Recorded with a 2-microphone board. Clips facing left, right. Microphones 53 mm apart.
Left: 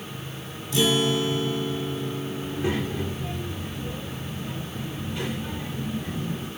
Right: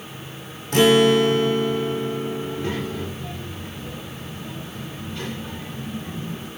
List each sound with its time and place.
0.7 s a guitar: 55° right (ahead or behind), 1.1 m
2.4 s a child speaking: 15° left (ahead or behind), 3 m